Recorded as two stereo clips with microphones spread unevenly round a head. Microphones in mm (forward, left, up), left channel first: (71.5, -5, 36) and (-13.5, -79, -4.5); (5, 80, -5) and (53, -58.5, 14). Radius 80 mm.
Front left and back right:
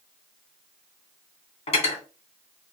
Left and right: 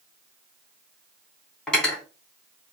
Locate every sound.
1.7 s cutlery clinking: 25° left, 2.5 m